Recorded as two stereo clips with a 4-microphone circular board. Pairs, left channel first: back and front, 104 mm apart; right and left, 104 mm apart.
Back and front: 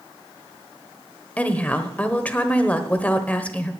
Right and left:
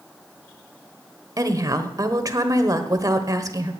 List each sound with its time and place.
1.4 s a woman speaking: 115° left, 1.2 m